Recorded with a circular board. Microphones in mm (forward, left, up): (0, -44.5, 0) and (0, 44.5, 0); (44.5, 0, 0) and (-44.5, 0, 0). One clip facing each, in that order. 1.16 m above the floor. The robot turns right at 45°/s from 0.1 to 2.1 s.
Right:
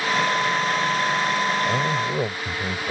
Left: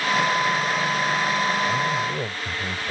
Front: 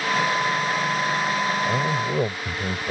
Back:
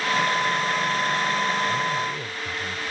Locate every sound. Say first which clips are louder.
1.6 s a man speaking: right 1 dB, front 2 dB; 40° right; by 2.9 s 20° right